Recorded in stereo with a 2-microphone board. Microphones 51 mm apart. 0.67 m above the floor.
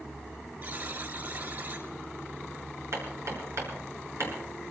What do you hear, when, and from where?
0.6 s a buzzer: 45° right (ahead or behind), 5 m
2.9 s hammering: 60° right (ahead or behind), 6.5 m